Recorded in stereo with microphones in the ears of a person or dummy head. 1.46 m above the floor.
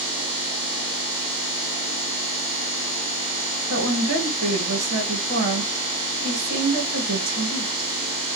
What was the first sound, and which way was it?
A woman speaking, 55° right (ahead or behind).